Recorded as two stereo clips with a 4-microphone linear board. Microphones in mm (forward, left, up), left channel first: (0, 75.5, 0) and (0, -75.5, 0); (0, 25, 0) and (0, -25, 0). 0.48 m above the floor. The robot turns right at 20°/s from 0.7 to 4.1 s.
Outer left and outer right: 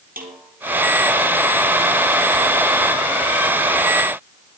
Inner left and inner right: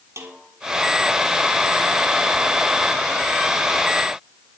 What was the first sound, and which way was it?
A snare drum, 90° right.